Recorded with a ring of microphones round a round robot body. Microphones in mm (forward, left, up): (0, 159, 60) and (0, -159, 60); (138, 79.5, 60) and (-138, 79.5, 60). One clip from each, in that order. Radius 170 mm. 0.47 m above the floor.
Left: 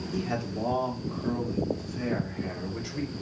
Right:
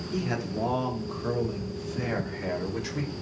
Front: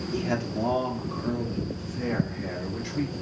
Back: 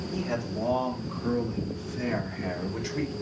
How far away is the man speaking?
About 1.3 m.